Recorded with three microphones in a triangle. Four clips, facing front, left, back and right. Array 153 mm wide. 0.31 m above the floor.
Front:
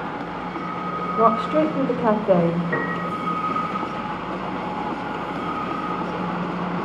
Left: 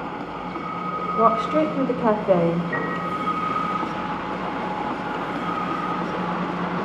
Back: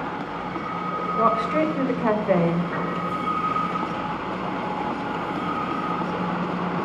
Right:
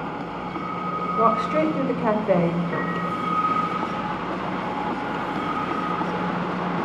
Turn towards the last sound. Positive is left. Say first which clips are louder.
# even, front 2 dB
turn(degrees=-10)